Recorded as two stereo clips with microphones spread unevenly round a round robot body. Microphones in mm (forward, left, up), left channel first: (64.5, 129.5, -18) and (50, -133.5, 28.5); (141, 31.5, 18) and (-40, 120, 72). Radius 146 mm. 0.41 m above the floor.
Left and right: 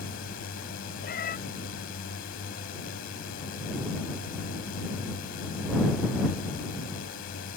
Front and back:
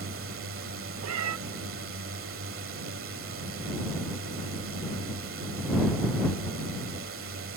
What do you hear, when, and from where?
0.0 s a drone: 140° left
1.0 s a cat meowing: 140° left